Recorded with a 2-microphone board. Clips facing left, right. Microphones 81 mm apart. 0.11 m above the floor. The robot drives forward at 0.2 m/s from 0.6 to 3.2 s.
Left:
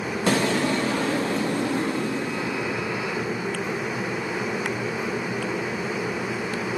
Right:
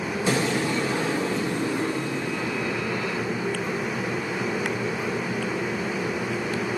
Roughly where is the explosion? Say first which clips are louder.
Left 3 dB; left.